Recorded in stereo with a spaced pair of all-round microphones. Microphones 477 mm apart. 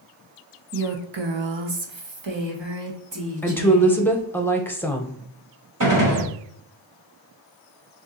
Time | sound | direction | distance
0.7 | a woman speaking | 35° right (ahead or behind) | 0.7 m
3.4 | a woman speaking | 5° left (ahead or behind) | 0.8 m
5.8 | a gunshot | 40° right (ahead or behind) | 1.3 m